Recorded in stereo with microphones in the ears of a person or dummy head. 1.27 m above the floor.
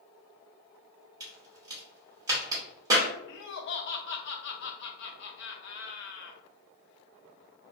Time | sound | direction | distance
1.2 | a crack | 10° right (ahead or behind) | 0.8 m
3.3 | laughter | 65° left (ahead or behind) | 0.7 m